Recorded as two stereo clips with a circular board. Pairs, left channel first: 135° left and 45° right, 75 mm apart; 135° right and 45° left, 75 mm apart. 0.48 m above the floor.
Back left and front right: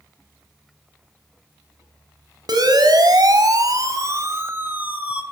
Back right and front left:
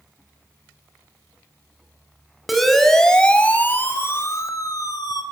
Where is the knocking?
I don't hear knocking.